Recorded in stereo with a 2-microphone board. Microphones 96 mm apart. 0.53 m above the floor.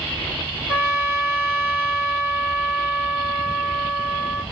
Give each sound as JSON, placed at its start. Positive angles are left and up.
{"t": 0.7, "sound": "a trumpet", "side_deg": -15, "distance_m": 1.3}